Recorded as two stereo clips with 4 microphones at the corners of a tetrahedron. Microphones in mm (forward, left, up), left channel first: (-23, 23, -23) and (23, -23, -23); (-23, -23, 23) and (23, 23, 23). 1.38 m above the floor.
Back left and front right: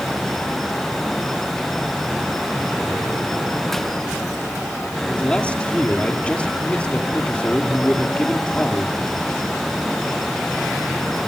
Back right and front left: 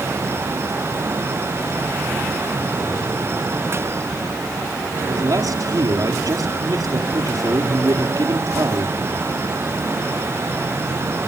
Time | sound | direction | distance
5.1 | a man speaking | 65° left | 4 m